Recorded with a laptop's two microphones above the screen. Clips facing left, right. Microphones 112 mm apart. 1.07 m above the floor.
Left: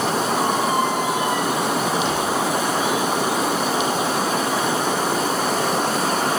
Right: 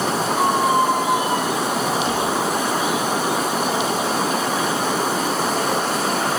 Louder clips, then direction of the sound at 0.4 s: Right 6 dB; 40° right (ahead or behind).